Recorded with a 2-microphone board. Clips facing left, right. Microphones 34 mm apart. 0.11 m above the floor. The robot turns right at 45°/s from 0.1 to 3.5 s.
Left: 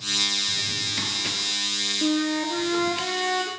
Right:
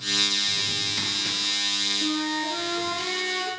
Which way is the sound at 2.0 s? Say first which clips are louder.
Left 2 dB; 135° left.